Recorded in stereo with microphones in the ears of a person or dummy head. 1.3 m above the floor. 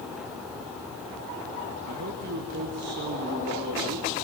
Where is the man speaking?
55° right (ahead or behind), 1.9 m.